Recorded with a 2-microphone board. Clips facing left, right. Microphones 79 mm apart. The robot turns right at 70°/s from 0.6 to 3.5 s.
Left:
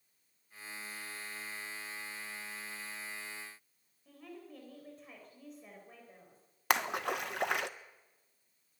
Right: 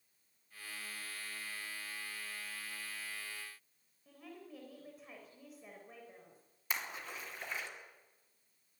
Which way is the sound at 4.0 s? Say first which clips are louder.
Left 2 dB; 5° right (ahead or behind).